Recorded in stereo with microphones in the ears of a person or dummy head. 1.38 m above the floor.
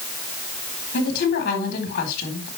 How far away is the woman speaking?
About 4 m.